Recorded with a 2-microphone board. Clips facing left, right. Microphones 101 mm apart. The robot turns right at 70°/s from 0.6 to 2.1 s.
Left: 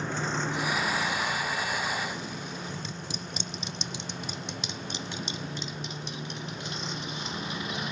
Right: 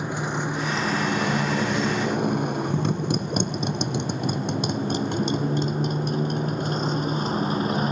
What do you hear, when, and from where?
0.0 s a motorcycle: 15° right (ahead or behind); by 7.9 s 45° right (ahead or behind)